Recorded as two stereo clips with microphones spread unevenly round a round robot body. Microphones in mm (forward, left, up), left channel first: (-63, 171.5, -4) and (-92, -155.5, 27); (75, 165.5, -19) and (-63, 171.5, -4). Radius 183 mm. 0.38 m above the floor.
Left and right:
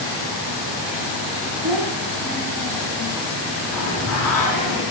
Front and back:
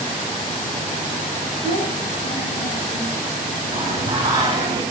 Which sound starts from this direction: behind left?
Singing, at 3.7 s.